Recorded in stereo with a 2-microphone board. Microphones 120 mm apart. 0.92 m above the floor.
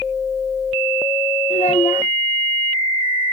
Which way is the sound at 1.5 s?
70° left (ahead or behind).